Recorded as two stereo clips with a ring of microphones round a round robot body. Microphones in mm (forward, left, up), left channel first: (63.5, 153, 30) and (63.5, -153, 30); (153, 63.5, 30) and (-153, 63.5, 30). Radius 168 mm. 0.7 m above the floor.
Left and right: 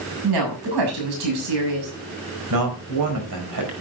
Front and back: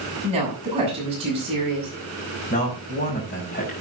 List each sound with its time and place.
0.2 s a woman speaking: 105° right, 6.5 m
2.5 s a man speaking: 65° right, 5 m